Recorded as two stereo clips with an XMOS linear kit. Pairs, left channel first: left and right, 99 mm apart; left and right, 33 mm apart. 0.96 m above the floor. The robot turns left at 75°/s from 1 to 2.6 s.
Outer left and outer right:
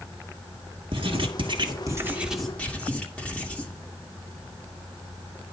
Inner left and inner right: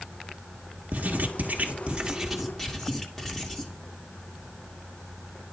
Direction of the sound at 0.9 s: 75° right.